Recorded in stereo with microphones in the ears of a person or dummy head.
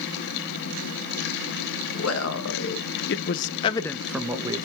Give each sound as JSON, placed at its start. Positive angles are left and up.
{"t": 1.9, "sound": "a man speaking", "side_deg": 75, "distance_m": 1.4}